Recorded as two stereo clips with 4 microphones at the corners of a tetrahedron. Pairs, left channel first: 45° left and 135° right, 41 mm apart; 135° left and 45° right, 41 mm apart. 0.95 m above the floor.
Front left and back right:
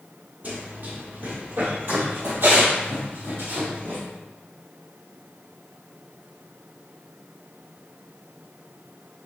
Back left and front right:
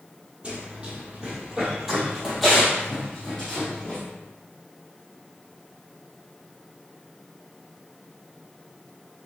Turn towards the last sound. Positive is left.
turn(degrees=-155)